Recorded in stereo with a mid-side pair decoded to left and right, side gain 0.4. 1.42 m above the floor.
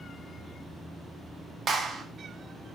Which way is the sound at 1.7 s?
50° right.